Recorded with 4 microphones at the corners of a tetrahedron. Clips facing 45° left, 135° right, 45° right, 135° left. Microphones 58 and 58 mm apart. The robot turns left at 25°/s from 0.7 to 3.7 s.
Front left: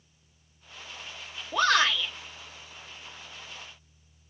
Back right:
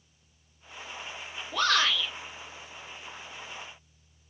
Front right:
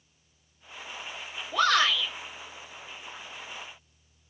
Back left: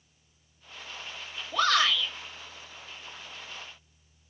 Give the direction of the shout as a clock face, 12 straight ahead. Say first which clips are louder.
Front left 3 dB, front right 1 dB; 11 o'clock.